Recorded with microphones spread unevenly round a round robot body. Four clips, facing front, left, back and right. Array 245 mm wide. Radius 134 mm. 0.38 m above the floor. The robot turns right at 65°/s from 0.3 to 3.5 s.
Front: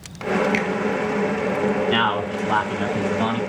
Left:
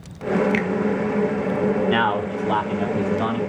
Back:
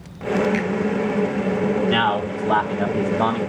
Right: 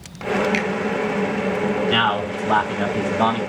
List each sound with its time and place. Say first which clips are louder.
0.5 s a finger snap: even, even; 65° left, 1.8 m; by 0.7 s 75° left, 1.8 m
1.9 s a man speaking: even, back 1 dB; 105° left, 1.7 m; by 3.4 s 160° right, 1.7 m